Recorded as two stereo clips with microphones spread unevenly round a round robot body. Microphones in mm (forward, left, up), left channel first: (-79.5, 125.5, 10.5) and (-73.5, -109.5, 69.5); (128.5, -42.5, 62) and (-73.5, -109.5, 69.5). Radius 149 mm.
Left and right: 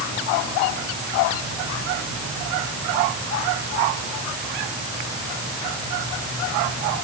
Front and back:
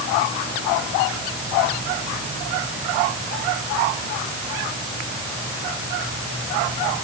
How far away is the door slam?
No door slam in this recording.